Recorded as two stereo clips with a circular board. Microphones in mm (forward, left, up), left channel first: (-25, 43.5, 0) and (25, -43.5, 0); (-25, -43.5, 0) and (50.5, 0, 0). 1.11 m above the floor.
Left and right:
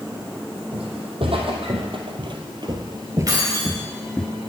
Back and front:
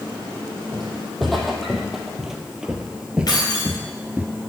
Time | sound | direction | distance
0.7 | footsteps | 60° right | 3 m
3.3 | keys jangling | 110° right | 3.5 m